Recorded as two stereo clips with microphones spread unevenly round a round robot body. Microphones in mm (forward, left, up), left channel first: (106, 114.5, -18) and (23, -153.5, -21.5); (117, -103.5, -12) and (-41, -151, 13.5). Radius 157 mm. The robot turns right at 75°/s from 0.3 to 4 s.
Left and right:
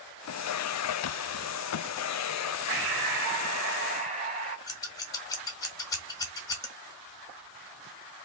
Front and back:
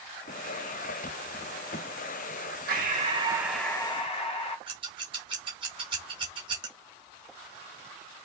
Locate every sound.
2.7 s breathing: 140° right, 1.3 m; by 4.6 s 40° right, 1.3 m
4.7 s scissors: 150° left, 0.5 m